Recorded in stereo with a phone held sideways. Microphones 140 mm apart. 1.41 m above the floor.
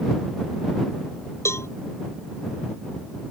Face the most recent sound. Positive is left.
turn(degrees=20)  # may be behind; listen again after turning